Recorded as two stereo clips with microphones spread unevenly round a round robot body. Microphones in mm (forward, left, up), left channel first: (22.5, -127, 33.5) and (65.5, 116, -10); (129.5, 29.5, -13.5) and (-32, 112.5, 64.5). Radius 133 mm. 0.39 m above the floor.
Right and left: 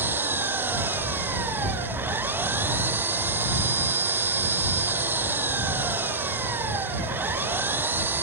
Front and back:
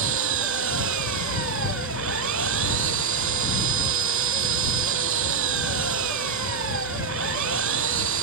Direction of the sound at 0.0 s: 165° left.